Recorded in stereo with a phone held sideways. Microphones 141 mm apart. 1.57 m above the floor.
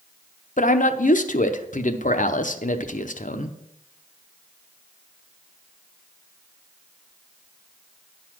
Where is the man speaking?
65° left (ahead or behind), 0.7 m.